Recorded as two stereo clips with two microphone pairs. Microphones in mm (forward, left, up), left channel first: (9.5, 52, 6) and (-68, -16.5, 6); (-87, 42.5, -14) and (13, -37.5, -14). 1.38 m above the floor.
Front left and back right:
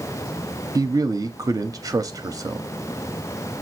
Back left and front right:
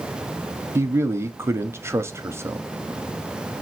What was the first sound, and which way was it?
A man speaking, 105° right.